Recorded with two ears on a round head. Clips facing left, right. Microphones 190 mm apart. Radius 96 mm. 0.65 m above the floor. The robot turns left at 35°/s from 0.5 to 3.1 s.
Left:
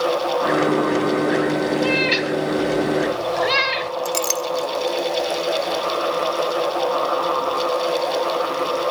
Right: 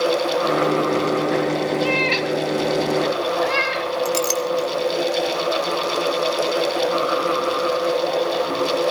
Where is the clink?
Centre (ahead or behind), 0.9 m.